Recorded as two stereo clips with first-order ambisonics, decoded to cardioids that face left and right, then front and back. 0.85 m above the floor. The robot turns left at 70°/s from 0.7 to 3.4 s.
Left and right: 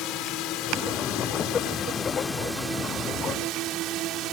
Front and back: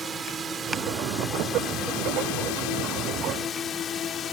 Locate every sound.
0.0 s a drone: 110° left; by 4.3 s 55° right